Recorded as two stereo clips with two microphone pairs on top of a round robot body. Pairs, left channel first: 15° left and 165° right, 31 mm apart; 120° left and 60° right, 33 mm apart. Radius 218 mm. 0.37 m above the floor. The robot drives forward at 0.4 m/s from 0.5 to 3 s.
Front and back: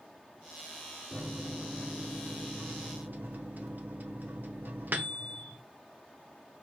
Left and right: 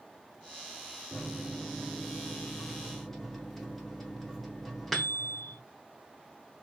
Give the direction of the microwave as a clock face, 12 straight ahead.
4 o'clock.